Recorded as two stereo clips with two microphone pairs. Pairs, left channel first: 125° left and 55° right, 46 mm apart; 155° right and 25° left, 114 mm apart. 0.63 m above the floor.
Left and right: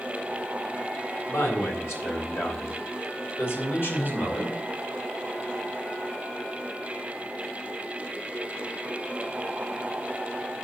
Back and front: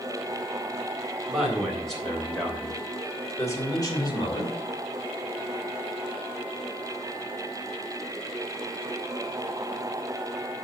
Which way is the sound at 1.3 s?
110° left.